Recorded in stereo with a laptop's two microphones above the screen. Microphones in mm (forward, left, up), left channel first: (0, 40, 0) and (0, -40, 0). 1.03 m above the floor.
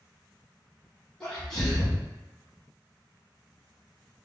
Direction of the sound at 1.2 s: 10° left (ahead or behind).